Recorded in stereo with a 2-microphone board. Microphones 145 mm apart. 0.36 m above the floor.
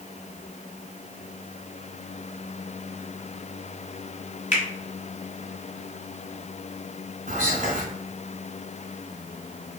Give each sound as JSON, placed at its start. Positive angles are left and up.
{"t": 4.5, "sound": "a finger snap", "side_deg": 55, "distance_m": 1.9}
{"t": 7.3, "sound": "whispering", "side_deg": -65, "distance_m": 1.7}